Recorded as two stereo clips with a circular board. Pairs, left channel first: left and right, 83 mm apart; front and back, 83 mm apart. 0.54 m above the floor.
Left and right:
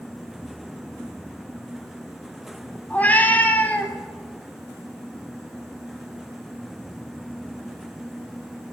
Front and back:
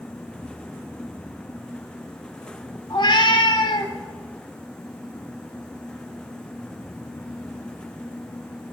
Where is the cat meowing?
20° left, 2.0 m.